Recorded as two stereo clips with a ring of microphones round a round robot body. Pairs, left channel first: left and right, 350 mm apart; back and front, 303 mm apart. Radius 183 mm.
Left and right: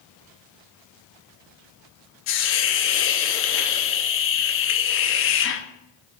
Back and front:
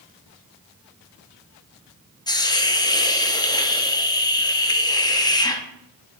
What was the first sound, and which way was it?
A hiss, 110° left.